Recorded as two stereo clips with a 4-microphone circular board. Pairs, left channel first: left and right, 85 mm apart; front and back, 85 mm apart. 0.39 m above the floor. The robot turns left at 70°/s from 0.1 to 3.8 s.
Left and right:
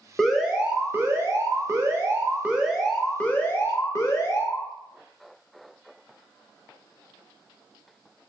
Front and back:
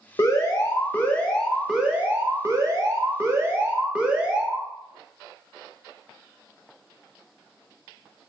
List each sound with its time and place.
0.2 s an alarm: 5° left, 0.7 m; by 4.7 s 115° left, 0.7 m